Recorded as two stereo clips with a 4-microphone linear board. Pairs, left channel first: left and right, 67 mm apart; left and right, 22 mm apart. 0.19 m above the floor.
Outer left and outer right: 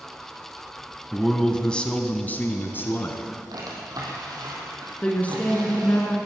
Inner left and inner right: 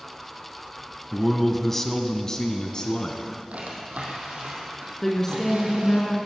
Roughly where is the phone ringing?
No phone ringing in this recording.